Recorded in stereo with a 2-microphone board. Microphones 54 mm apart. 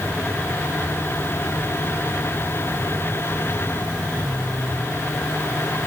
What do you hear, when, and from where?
Only background noise.